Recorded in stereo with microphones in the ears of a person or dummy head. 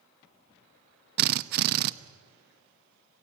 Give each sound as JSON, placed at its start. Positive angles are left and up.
{"t": 1.2, "sound": "a drill", "side_deg": -50, "distance_m": 0.7}